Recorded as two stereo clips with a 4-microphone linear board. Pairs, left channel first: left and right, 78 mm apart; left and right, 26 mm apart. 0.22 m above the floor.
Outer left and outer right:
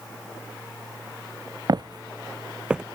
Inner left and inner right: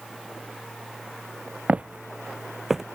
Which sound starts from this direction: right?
Footsteps, at 1.7 s.